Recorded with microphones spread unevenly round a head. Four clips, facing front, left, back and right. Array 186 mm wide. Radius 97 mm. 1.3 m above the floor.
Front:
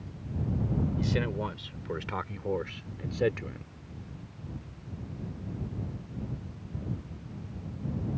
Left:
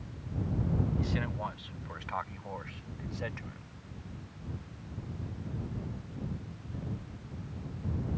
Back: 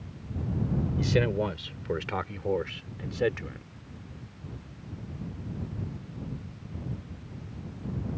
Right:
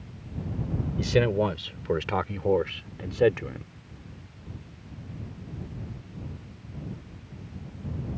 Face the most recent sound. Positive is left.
turn(degrees=-80)